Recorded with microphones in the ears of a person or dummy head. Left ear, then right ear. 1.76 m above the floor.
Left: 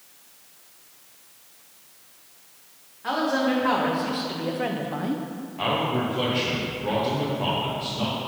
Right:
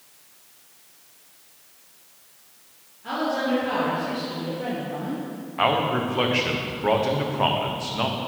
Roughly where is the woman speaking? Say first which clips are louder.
Left 1 dB; left.